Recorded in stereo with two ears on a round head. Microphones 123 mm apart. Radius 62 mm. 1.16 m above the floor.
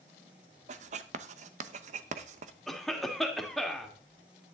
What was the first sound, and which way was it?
Writing, 55° right (ahead or behind).